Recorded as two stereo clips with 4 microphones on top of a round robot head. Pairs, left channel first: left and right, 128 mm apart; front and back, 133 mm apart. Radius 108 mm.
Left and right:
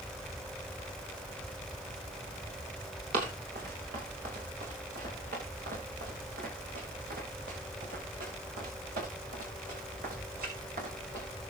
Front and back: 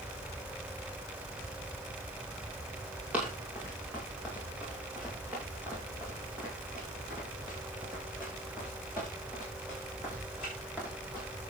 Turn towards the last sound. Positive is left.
turn(degrees=-100)